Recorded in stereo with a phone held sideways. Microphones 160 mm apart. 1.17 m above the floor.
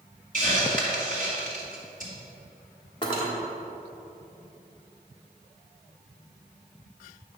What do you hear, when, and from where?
0.3 s a hiss: 55° right (ahead or behind), 2.5 m
3.0 s cutlery clinking: 35° left (ahead or behind), 1.7 m